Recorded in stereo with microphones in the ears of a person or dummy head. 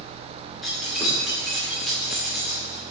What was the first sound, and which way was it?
Keys jangling, 5° left (ahead or behind).